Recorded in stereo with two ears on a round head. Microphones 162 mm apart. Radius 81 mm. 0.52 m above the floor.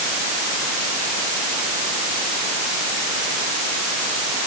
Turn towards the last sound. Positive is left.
No sound to turn to.